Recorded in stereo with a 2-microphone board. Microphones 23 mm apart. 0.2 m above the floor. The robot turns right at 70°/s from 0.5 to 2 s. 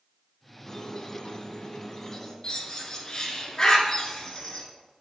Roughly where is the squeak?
Ahead left.